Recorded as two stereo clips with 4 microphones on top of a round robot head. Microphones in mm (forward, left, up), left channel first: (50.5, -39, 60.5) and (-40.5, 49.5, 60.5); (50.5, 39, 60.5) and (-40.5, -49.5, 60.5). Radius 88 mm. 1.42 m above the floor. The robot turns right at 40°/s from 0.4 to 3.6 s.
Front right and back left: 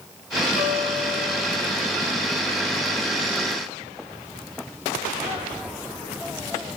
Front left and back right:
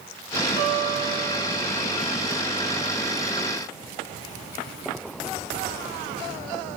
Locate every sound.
0.6 s a guitar: 130° left, 5 m; by 1.7 s 175° left, 5 m